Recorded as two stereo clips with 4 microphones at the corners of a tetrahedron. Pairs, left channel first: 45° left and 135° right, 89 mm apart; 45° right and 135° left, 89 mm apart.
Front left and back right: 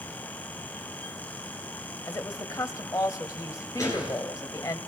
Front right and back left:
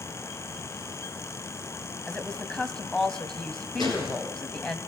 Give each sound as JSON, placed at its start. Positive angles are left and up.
{"t": 2.1, "sound": "a woman speaking", "azimuth_deg": 30, "distance_m": 1.2}
{"t": 3.8, "sound": "a gunshot", "azimuth_deg": -5, "distance_m": 6.0}